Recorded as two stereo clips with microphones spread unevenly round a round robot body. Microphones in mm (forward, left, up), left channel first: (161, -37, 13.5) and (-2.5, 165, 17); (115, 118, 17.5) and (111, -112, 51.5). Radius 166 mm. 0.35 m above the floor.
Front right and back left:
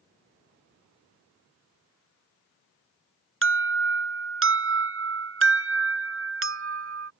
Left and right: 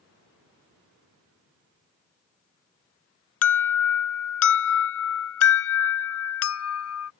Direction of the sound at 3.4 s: 95° left.